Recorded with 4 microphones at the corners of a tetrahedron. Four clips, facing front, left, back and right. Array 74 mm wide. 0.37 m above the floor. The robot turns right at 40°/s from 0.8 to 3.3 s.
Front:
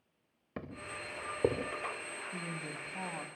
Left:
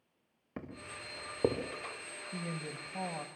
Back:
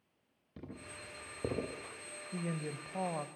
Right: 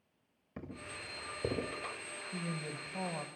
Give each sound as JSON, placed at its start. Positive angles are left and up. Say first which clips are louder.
{"t": 0.6, "sound": "footsteps", "louder": "left 1 dB, front 6 dB", "azimuth_deg": 30, "distance_m": 4.5}
{"t": 2.3, "sound": "a woman speaking", "louder": "even, back 6 dB", "azimuth_deg": 150, "distance_m": 1.3}